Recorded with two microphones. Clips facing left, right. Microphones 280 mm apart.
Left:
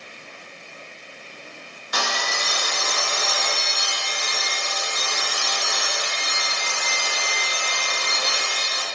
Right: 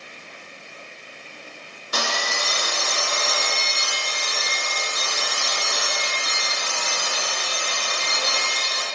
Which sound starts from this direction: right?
Sawing, at 1.9 s.